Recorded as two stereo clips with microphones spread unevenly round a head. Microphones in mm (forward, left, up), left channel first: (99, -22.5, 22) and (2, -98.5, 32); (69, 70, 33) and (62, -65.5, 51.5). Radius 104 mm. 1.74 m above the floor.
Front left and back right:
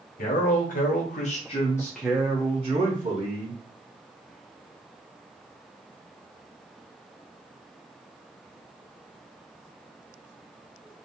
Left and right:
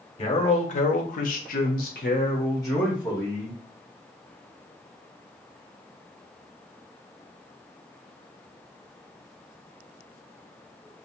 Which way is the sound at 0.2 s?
45° left.